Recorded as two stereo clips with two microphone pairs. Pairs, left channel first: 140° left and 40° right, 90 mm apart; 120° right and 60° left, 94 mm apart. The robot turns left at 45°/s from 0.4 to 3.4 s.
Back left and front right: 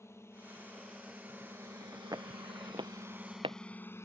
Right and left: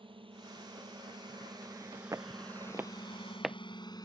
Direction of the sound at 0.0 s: 80° left.